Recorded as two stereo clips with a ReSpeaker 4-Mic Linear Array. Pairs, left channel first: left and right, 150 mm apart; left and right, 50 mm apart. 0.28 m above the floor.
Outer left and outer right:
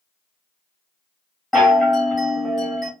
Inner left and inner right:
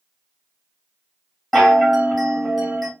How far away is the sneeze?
No sneeze in this recording.